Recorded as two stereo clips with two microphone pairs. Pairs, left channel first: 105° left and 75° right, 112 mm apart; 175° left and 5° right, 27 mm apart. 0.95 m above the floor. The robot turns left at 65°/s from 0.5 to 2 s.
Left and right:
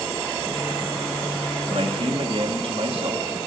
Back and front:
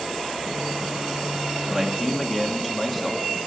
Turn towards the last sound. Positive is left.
turn(degrees=-95)